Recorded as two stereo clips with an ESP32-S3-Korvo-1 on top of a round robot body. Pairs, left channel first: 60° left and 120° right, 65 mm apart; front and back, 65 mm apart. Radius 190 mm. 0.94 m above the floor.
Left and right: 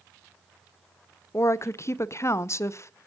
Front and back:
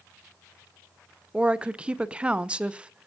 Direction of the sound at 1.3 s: 105° left.